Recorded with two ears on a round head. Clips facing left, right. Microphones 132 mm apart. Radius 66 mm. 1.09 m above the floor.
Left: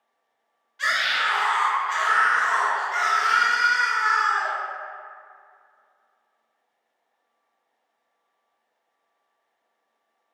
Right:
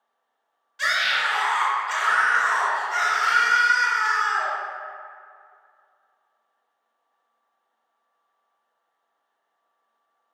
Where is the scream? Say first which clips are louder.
Even; 60° right (ahead or behind), 1.0 m.